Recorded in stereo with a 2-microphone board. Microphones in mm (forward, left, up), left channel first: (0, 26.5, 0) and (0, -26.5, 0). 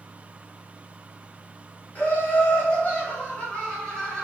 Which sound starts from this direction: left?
Laughter, at 1.9 s.